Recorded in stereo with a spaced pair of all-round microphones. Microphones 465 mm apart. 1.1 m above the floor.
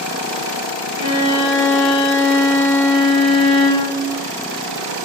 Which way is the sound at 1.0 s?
80° right.